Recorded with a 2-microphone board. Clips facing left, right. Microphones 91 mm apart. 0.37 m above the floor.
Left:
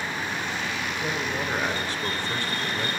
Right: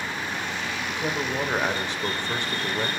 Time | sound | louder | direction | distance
0.9 | a man speaking | right 4 dB | 20° right (ahead or behind) | 0.9 m